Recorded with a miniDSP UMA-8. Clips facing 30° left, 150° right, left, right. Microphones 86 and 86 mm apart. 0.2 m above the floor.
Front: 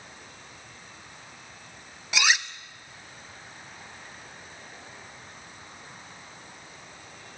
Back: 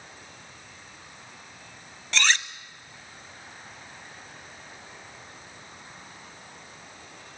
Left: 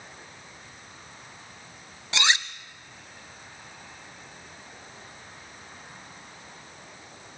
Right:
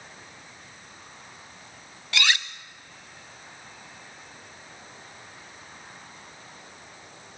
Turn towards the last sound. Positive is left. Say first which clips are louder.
# even, left 1 dB
turn(degrees=95)